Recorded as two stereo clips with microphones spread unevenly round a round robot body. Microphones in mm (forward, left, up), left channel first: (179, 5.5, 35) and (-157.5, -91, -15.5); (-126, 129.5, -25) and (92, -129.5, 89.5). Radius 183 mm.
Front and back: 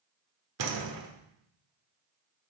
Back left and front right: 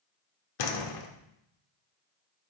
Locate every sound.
0.6 s a door slam: 150° left, 1.6 m